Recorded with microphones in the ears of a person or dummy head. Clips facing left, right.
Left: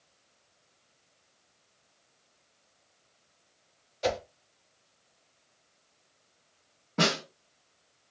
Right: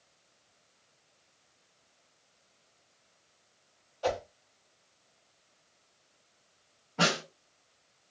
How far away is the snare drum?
About 1.3 m.